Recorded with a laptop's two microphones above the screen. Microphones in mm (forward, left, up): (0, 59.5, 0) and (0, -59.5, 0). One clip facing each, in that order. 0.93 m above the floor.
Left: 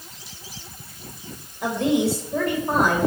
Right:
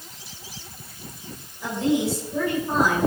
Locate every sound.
1.6 s a woman speaking: 70° left (ahead or behind), 5 m; by 3.1 s 60° left (ahead or behind), 4.5 m